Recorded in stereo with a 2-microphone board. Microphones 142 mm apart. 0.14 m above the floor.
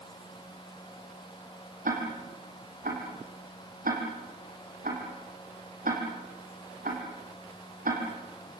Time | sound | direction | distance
1.9 | ticking | 75° right (ahead or behind) | 5 m